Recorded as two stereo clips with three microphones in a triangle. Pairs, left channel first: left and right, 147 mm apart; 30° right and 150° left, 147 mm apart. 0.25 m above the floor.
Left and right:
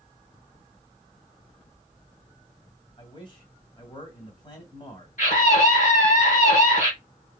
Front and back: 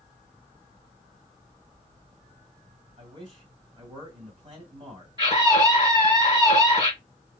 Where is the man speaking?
120° left, 1.9 m.